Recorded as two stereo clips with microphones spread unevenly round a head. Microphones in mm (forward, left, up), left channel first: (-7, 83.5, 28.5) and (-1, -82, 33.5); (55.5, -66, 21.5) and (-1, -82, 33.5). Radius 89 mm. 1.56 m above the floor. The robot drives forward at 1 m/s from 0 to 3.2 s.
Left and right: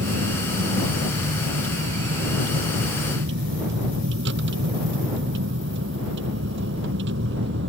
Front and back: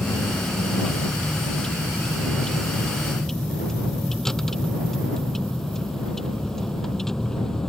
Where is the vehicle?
60° right; by 7.7 s 65° right.